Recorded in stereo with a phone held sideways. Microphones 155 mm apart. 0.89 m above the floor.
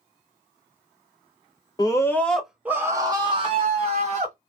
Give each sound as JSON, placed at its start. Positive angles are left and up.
{"t": 1.8, "sound": "a scream", "side_deg": 25, "distance_m": 0.8}